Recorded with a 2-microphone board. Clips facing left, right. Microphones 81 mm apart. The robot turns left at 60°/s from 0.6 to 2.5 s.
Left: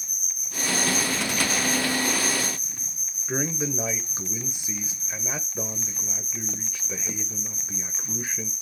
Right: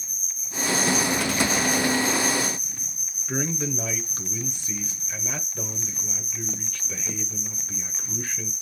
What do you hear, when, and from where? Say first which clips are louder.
0.0 s an insect: left 1 dB; 60° left, 1.3 m; by 8.6 s 55° right, 1.3 m
3.3 s a man speaking: even; 15° left (ahead or behind), 1.2 m